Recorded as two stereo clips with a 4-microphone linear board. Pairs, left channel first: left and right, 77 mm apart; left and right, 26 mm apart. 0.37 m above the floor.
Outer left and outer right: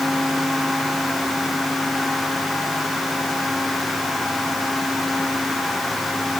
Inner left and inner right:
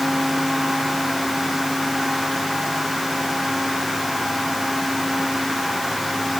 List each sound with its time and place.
Only background noise.